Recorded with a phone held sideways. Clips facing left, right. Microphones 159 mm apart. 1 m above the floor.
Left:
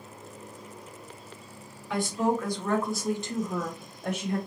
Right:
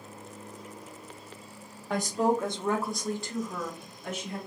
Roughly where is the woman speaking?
Right.